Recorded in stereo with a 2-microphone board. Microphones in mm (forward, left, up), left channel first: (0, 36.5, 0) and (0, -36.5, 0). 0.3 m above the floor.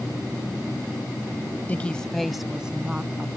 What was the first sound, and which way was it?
A woman speaking, 25° left (ahead or behind).